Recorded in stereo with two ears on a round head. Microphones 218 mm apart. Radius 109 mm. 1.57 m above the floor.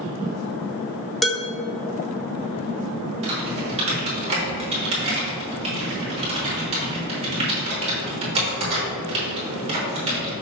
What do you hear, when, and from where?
1.2 s dishes clattering: centre (ahead or behind), 1.4 m
3.2 s typing on a keyboard: 25° right (ahead or behind), 3.5 m